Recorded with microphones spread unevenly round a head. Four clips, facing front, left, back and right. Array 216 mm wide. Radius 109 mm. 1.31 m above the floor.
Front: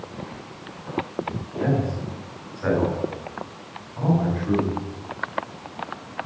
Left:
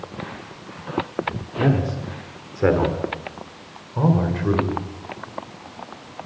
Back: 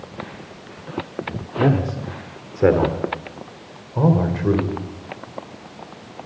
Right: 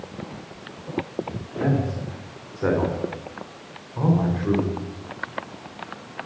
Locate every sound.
1.6 s a man speaking: 155° left, 3.5 m; by 4.8 s 165° left, 5 m